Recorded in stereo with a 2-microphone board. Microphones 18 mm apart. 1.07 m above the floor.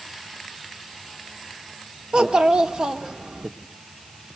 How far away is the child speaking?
About 1.4 m.